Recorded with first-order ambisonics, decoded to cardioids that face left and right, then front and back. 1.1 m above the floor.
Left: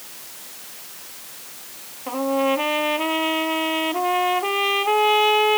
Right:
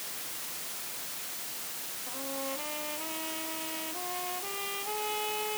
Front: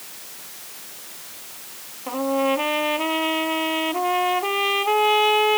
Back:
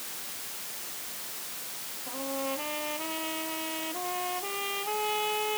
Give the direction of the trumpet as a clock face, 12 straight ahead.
10 o'clock.